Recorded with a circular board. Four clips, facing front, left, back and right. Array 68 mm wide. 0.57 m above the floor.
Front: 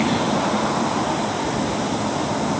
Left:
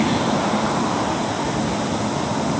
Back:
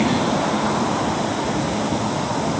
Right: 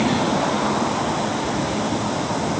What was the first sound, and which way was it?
Only background noise.